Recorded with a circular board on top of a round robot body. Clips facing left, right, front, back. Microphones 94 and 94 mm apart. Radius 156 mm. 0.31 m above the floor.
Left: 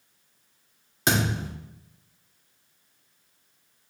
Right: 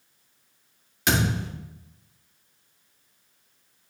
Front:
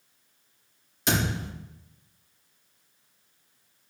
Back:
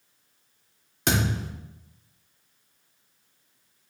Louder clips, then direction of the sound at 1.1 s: Right 1 dB, back 1 dB; 145° left.